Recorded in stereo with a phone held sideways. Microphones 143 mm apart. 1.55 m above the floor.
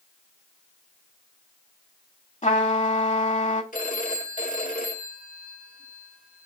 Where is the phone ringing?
65° left (ahead or behind), 2 m.